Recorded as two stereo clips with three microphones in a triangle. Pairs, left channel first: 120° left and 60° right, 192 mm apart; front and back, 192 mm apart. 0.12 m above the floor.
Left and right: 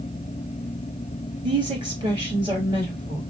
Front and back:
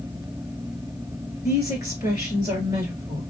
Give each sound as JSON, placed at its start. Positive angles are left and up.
{"t": 1.4, "sound": "a woman speaking", "azimuth_deg": -115, "distance_m": 2.0}